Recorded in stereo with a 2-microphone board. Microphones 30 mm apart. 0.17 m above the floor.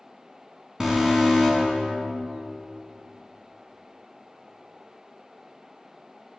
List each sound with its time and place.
0.8 s an alarm: 20° right (ahead or behind), 1.3 m